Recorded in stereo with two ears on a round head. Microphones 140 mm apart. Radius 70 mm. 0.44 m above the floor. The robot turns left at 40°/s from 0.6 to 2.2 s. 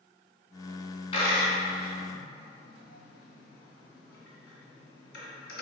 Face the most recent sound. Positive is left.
turn(degrees=80)